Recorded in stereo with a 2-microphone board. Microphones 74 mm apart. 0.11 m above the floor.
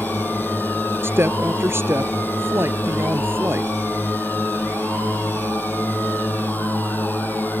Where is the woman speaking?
35° right (ahead or behind).